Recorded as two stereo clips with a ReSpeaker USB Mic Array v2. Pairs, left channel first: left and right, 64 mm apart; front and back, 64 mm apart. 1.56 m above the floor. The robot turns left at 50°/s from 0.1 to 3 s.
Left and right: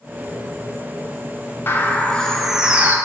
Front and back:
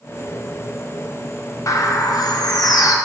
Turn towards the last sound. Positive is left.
turn(degrees=-30)